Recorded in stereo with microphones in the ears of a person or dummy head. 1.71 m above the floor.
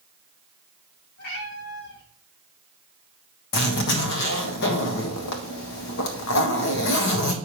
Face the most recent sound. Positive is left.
turn(degrees=65)  # may be behind; listen again after turning